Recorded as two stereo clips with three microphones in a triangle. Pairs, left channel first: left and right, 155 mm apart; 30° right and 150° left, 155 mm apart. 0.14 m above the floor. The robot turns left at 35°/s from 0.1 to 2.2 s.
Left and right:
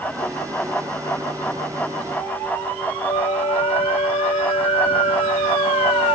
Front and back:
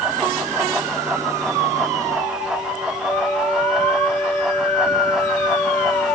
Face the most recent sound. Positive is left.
turn(degrees=50)